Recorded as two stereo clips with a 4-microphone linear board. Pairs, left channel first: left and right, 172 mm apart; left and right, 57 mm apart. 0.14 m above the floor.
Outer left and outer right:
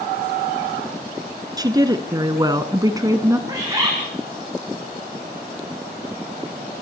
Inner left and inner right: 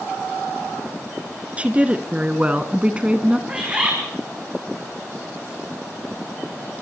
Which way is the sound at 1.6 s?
25° right (ahead or behind).